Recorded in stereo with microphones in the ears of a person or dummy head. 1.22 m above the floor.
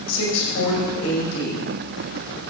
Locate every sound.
0.1 s a woman speaking: 90° left, 6 m